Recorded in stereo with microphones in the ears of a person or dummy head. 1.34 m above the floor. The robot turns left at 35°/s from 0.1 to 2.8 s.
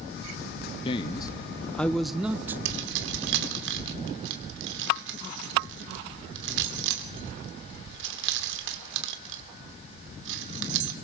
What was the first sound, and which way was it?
A man speaking, 40° left.